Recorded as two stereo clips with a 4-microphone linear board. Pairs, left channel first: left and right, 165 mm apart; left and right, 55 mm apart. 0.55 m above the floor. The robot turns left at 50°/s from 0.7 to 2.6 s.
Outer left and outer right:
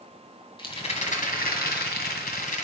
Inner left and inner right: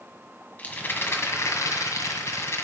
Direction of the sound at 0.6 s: 145° left.